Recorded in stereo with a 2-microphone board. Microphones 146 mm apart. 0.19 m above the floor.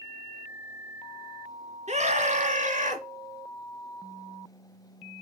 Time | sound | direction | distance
1.9 | a scream | 50° right (ahead or behind) | 2 m